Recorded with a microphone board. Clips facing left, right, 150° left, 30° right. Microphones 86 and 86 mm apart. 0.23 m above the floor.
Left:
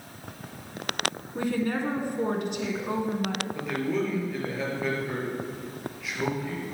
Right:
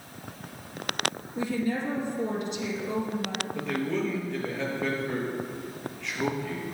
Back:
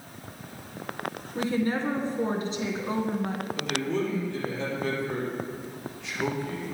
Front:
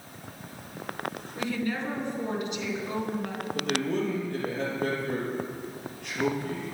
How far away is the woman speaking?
About 1.9 m.